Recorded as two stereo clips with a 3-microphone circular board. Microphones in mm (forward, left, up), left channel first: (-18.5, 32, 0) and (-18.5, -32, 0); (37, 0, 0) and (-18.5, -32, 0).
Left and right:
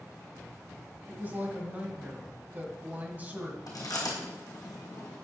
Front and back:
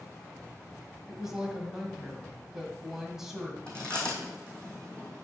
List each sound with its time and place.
1.1 s a woman speaking: 75° right, 1.5 m
3.7 s chewing: 105° left, 2.5 m